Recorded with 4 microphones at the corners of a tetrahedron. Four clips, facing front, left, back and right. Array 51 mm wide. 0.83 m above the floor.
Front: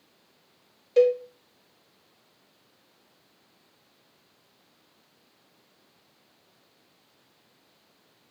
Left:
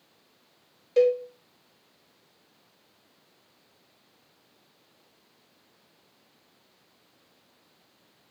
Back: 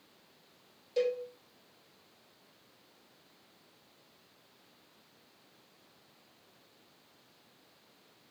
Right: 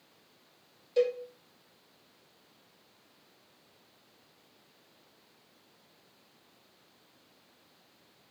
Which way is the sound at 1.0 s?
40° left.